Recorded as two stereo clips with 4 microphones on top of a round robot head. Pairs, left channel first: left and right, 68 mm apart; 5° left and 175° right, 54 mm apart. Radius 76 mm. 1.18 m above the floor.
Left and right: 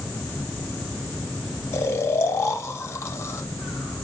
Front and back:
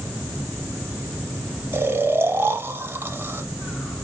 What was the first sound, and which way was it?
Snoring, 140° left.